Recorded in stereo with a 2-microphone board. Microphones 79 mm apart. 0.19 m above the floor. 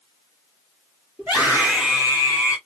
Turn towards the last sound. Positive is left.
turn(degrees=-15)  # may be behind; listen again after turning